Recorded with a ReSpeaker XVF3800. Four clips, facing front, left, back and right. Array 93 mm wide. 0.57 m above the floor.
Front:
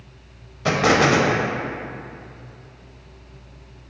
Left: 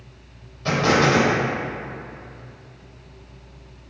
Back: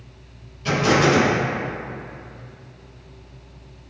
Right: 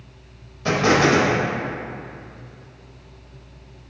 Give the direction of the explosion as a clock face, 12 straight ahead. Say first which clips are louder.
Right 1 dB, front 1 dB; 12 o'clock.